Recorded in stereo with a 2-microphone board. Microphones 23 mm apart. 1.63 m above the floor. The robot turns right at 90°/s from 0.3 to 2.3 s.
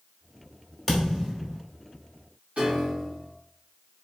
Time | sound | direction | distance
0.9 | a thud | 20° left (ahead or behind) | 1.4 m
2.6 | a piano | 60° right (ahead or behind) | 1.8 m